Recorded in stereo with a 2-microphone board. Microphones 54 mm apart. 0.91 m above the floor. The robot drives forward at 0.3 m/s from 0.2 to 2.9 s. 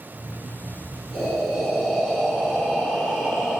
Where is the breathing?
5° left (ahead or behind), 7 m.